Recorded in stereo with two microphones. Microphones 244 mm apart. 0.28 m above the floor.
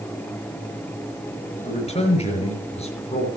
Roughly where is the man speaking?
Left.